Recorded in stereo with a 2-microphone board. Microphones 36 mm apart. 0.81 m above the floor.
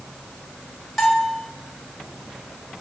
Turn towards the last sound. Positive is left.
turn(degrees=0)  # may be behind; listen again after turning